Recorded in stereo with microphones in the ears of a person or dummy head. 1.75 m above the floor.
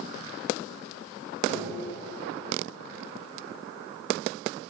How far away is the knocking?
About 6 m.